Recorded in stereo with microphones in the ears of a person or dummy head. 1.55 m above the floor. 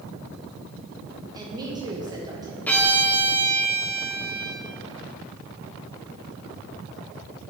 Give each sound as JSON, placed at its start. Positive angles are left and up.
{"t": 1.3, "sound": "a woman speaking", "side_deg": -25, "distance_m": 1.2}
{"t": 2.7, "sound": "a violin", "side_deg": 10, "distance_m": 0.9}